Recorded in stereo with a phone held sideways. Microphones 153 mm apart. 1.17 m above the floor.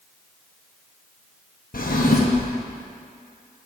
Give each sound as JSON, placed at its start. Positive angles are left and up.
{"t": 1.7, "sound": "a drawer", "side_deg": 70, "distance_m": 0.8}